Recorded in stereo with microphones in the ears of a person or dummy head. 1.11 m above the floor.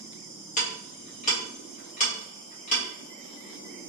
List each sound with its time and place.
0.6 s ticking: 45° left (ahead or behind), 0.9 m